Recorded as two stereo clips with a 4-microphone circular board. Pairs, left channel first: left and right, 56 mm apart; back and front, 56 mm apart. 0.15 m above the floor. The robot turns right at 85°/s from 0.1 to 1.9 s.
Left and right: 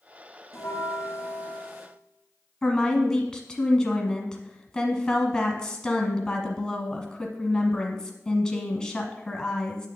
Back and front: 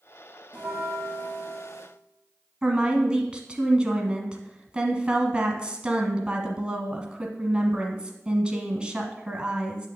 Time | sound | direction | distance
0.5 | a bell | 70° left | 2 m
2.6 | a woman speaking | 35° left | 1.2 m